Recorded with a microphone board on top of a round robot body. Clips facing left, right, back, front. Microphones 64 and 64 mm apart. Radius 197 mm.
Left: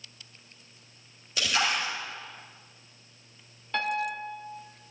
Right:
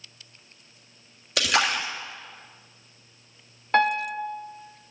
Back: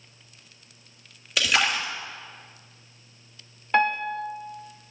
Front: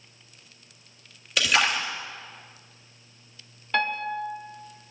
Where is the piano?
120° right, 1.1 m.